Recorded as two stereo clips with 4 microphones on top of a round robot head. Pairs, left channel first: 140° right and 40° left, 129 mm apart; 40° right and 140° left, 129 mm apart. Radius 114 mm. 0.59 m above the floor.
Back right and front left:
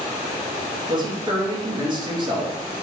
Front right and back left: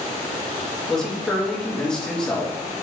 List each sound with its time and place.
0.9 s a man speaking: 40° left, 1.2 m